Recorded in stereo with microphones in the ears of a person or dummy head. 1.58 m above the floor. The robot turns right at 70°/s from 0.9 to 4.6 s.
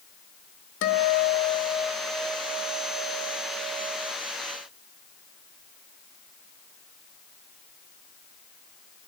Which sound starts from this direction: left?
A guitar, at 0.8 s.